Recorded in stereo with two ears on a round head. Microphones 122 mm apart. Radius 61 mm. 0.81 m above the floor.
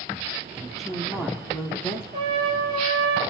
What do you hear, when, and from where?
0.6 s a woman speaking: 5° right (ahead or behind), 1.4 m; by 2.0 s 15° left (ahead or behind), 1.9 m
2.1 s a trumpet: 35° right (ahead or behind), 3 m